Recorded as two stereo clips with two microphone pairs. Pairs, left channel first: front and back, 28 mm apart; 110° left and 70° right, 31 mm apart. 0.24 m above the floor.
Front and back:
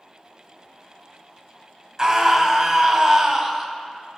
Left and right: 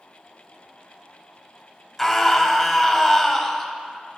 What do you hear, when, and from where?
2.0 s a scream: 175° left, 1.0 m